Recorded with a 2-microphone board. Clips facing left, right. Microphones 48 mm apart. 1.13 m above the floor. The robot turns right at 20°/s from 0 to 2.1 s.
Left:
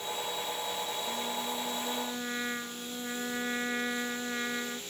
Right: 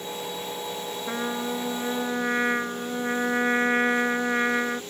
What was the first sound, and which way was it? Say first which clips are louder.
A trumpet: right 6 dB; 60° right (ahead or behind).